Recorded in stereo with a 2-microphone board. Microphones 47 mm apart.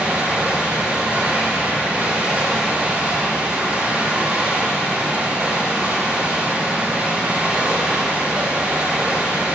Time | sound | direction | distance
0.0 | running water | 30° right (ahead or behind) | 7 m